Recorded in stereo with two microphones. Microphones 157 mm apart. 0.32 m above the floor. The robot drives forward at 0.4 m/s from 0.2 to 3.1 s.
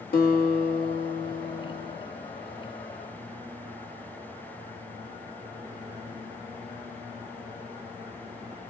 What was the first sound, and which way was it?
A guitar, 80° left.